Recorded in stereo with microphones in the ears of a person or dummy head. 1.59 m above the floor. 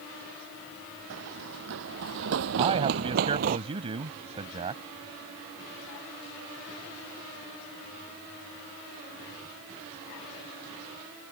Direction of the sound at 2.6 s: 30° right (ahead or behind).